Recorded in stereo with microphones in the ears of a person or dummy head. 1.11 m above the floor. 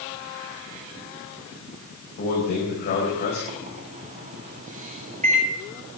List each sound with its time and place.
2.2 s a man speaking: 50° left (ahead or behind), 5 m
3.5 s a microwave: 40° right (ahead or behind), 2 m